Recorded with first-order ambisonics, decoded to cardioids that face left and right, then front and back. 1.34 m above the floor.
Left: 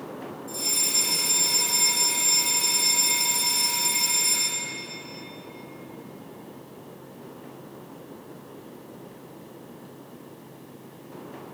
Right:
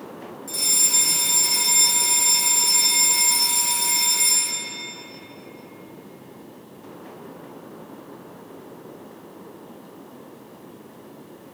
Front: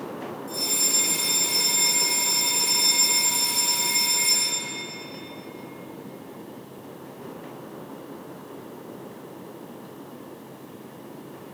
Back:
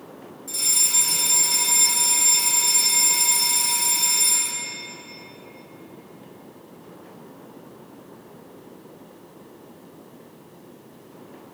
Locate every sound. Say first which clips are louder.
0.5 s a fire alarm: right 5 dB, back 3 dB; 120° right, 3.5 m